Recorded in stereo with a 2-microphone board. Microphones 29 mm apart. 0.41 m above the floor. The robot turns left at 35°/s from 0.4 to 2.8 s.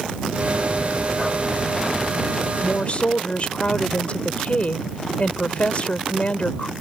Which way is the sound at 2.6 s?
45° left (ahead or behind).